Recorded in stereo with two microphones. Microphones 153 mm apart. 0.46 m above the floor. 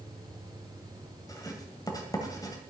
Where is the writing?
20° left (ahead or behind), 2 m.